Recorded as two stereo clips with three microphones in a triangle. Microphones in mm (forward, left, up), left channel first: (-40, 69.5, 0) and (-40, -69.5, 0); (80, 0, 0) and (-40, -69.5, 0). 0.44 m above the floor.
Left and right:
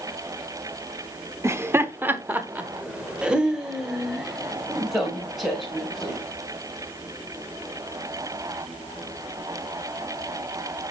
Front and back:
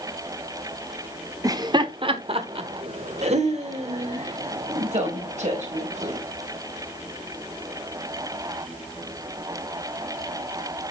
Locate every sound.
1.4 s laughter: 130° right, 0.9 m; by 6.2 s straight behind, 3 m